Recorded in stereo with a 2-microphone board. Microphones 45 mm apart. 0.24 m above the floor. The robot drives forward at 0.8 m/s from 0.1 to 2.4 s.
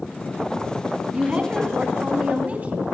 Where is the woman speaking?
25° right (ahead or behind), 2.5 m; by 2.9 s 30° right (ahead or behind), 1.9 m.